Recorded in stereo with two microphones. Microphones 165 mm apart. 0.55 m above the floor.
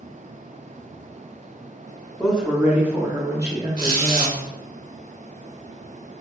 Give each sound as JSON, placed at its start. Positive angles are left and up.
{"t": 2.2, "sound": "a woman speaking", "side_deg": -5, "distance_m": 0.9}
{"t": 3.8, "sound": "a squeak", "side_deg": -60, "distance_m": 1.4}